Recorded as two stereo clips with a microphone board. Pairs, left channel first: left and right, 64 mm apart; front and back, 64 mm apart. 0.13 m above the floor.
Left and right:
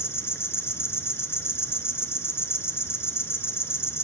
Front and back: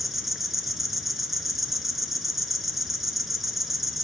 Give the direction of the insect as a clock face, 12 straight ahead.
9 o'clock.